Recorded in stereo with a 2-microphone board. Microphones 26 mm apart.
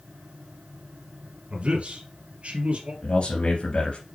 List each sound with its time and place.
1.5 s a man speaking: 60° right (ahead or behind), 2.5 m
3.0 s a man speaking: 55° left (ahead or behind), 2.5 m